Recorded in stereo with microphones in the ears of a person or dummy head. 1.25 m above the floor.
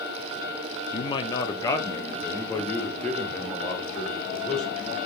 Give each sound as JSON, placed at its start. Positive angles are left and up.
{"t": 0.9, "sound": "a man speaking", "side_deg": 35, "distance_m": 0.7}